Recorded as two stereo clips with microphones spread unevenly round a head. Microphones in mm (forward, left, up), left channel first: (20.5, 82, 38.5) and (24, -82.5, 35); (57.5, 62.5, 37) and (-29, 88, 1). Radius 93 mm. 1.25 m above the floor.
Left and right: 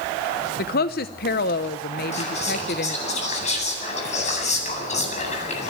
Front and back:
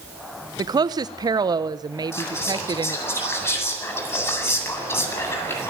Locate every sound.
0.6 s a woman speaking: 125° left, 0.8 m
2.1 s whispering: 45° left, 9 m